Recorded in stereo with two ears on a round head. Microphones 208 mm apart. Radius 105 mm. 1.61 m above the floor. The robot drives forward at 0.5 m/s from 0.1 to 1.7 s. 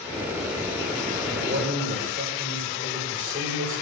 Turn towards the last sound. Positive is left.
turn(degrees=-35)  # may be behind; listen again after turning